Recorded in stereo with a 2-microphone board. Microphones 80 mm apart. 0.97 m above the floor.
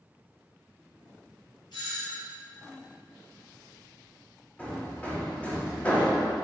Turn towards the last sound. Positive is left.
turn(degrees=20)  # may be behind; listen again after turning